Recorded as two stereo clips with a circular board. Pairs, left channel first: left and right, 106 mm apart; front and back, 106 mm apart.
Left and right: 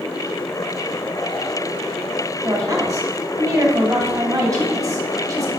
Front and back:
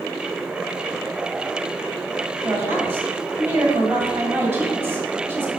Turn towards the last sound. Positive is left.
turn(degrees=-125)